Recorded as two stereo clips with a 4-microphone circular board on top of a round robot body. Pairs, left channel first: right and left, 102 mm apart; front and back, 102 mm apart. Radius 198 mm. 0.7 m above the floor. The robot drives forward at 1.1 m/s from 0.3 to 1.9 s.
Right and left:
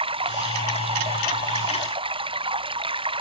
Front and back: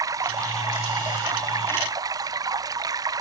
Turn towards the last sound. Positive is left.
turn(degrees=125)